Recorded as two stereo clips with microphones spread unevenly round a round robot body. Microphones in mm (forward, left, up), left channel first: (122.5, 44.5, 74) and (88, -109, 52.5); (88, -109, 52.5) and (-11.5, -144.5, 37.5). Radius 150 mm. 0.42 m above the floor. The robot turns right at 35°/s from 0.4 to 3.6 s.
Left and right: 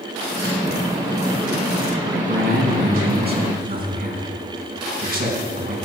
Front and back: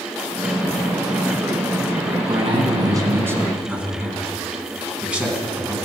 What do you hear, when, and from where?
2.3 s a man speaking: 125° right, 3.5 m; by 5.8 s 80° right, 3.5 m